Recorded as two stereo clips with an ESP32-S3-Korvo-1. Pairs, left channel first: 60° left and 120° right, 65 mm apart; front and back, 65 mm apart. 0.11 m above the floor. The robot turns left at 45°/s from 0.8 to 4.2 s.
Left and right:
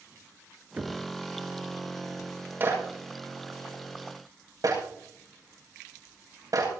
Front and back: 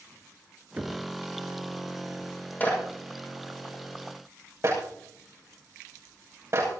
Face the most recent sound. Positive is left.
turn(degrees=-135)